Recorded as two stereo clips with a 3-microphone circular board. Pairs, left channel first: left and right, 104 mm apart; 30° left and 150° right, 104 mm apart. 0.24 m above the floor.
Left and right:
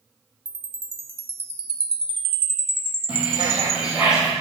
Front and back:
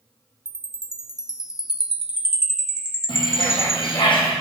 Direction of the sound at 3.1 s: 10° right.